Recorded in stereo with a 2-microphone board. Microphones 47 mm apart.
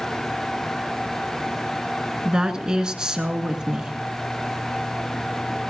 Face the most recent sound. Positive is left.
turn(degrees=-15)  # may be behind; listen again after turning